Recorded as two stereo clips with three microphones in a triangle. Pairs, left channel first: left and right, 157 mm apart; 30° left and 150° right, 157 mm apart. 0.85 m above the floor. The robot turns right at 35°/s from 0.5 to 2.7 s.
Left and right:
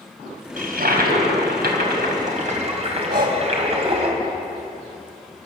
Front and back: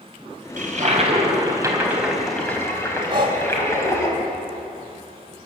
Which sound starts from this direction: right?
Breathing, at 3.1 s.